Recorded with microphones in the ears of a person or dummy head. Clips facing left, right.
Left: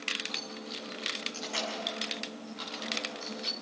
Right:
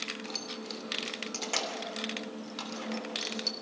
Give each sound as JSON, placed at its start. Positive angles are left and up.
{"t": 0.2, "sound": "keys jangling", "side_deg": -85, "distance_m": 2.5}